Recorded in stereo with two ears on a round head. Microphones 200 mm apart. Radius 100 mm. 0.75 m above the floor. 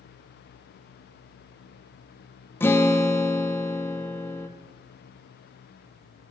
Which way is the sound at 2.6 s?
10° left (ahead or behind).